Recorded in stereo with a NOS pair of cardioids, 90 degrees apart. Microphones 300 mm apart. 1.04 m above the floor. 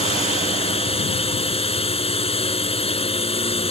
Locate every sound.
0.0 s a drone: 20° left